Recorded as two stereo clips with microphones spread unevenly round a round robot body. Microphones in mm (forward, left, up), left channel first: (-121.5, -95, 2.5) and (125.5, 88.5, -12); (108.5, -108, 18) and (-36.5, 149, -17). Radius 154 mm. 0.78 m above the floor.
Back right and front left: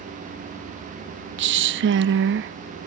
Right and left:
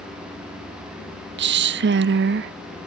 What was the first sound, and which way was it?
A woman speaking, 80° left.